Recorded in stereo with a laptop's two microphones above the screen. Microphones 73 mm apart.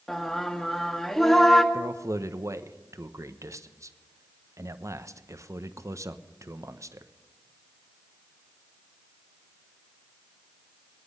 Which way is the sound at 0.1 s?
5° left (ahead or behind).